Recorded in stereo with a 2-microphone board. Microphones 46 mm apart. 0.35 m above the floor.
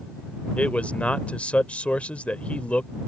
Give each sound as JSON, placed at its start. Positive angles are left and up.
{"t": 0.6, "sound": "a man speaking", "side_deg": 30}